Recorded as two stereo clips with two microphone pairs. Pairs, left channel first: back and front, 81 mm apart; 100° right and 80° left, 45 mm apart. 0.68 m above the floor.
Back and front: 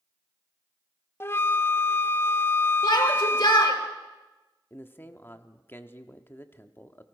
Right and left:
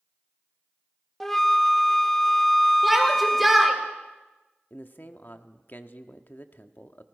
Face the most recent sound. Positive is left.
turn(degrees=-125)